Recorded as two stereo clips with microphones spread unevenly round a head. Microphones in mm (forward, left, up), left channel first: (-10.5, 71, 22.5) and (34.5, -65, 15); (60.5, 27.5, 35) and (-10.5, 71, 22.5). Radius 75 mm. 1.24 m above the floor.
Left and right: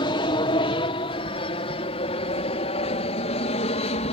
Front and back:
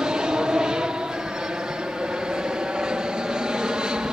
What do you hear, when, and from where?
0.0 s an aircraft: 85° left; by 4.1 s 70° left